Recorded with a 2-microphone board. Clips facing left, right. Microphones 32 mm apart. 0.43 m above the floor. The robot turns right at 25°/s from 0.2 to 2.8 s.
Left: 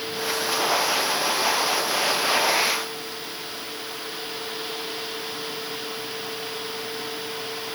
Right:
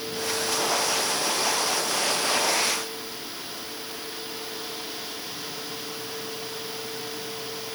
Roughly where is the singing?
I don't hear singing.